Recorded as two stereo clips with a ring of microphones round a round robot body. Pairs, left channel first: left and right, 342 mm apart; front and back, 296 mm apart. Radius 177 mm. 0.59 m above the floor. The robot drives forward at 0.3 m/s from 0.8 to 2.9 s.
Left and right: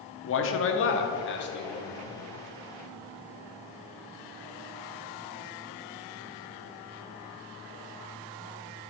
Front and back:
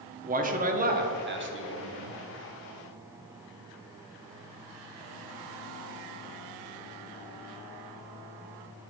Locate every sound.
0.2 s a man speaking: 125° left, 0.8 m; by 2.2 s 150° left, 1.1 m